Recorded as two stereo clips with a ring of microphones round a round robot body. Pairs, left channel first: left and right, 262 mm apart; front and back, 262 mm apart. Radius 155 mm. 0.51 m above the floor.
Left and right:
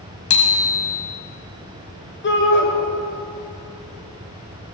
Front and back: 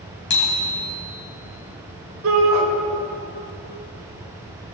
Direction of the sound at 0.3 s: 55° left.